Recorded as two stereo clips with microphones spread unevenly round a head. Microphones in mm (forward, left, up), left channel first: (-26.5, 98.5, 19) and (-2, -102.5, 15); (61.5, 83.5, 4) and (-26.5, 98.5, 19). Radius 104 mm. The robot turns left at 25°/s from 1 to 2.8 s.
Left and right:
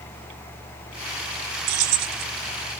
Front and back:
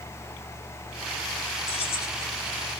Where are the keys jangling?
60° right, 0.5 m; by 2.2 s 70° right, 0.5 m.